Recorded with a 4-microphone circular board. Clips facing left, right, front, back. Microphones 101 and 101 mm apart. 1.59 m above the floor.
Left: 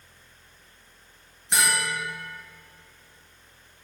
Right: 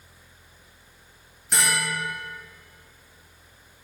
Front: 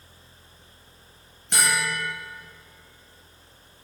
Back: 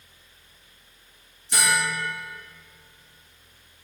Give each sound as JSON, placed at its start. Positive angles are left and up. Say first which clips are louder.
{"t": 1.5, "sound": "a bell", "louder": "even, back 1 dB", "azimuth_deg": 15, "distance_m": 2.5}